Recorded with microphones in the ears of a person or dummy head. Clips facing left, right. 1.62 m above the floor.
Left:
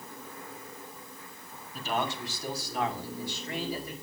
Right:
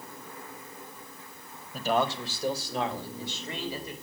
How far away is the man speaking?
About 2.5 m.